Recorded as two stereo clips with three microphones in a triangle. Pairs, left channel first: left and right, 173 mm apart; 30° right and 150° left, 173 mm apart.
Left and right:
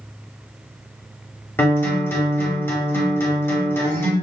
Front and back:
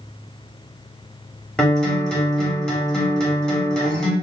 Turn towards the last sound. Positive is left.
turn(degrees=45)